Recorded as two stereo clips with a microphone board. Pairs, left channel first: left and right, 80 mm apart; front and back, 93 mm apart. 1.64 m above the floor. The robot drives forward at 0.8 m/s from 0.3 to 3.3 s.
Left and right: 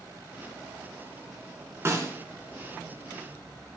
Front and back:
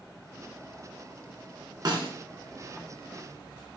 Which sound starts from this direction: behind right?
A snare drum, at 1.9 s.